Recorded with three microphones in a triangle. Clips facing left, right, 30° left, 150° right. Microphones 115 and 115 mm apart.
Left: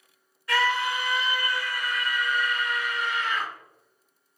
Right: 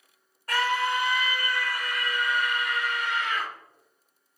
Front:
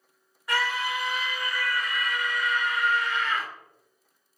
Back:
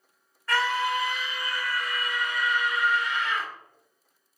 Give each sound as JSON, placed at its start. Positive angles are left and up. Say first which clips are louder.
{"t": 0.5, "sound": "a scream", "louder": "left 1 dB, back 3 dB", "azimuth_deg": -45, "distance_m": 1.3}